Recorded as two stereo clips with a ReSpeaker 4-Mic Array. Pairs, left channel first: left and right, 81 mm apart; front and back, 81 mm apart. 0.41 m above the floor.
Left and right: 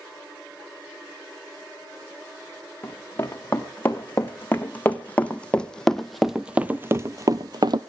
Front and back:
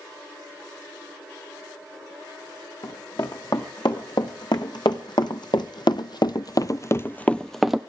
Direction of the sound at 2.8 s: 30° left.